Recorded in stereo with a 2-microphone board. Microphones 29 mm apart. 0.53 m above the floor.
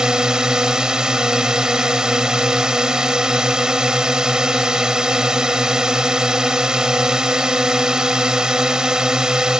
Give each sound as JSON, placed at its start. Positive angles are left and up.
{"t": 0.0, "sound": "a drone", "side_deg": -25}